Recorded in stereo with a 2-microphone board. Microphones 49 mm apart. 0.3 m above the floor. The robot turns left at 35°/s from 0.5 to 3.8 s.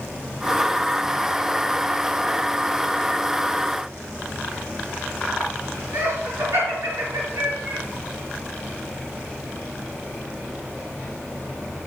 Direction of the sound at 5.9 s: 75° right (ahead or behind).